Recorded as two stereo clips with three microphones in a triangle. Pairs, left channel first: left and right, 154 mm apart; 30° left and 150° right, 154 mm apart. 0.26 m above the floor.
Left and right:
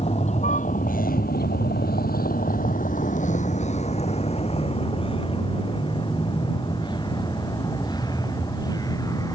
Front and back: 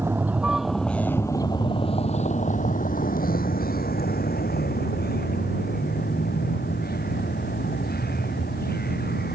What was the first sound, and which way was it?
A vehicle, 135° left.